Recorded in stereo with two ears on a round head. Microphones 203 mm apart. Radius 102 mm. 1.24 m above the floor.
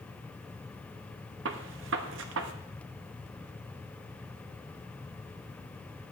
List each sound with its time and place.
1.4 s a gunshot: 60° right (ahead or behind), 0.8 m